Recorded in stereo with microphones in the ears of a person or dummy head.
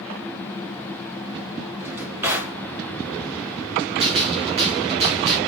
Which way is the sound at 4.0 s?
35° right (ahead or behind).